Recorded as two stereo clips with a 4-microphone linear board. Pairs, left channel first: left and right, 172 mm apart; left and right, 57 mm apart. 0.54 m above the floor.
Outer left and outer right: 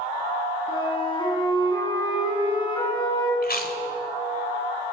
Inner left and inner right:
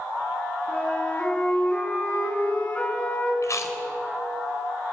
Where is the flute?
25° left (ahead or behind), 6.5 m.